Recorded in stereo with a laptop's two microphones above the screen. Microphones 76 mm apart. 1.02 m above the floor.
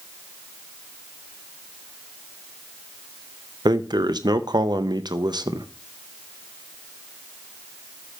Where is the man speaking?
65° right (ahead or behind), 0.8 m.